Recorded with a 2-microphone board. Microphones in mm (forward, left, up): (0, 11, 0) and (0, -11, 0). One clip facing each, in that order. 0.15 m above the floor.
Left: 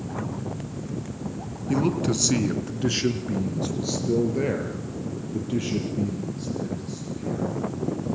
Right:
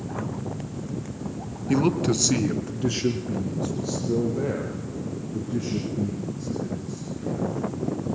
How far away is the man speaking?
About 2 m.